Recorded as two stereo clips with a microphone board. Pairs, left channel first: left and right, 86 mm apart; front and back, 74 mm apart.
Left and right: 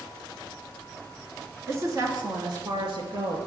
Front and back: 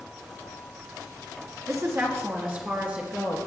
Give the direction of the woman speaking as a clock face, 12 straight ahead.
5 o'clock.